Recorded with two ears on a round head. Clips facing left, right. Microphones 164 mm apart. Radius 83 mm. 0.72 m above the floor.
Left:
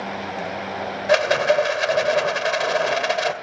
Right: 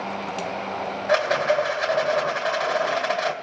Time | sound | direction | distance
1.1 | a rattle | 35° left (ahead or behind) | 2 m